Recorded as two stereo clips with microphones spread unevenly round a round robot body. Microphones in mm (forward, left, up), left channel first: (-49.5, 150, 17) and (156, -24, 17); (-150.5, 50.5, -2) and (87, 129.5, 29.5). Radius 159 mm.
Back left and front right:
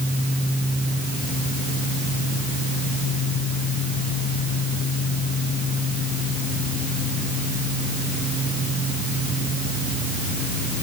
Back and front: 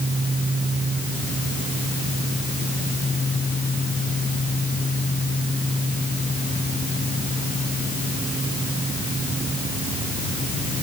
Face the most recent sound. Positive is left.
No sound to turn to.